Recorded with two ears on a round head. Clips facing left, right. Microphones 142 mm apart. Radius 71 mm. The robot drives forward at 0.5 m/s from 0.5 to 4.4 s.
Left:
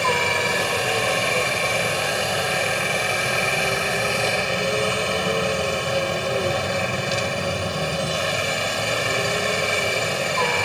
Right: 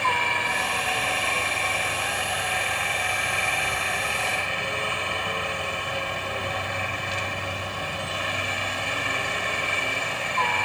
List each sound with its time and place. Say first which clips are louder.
0.0 s a helicopter: left 4 dB; 50° left (ahead or behind)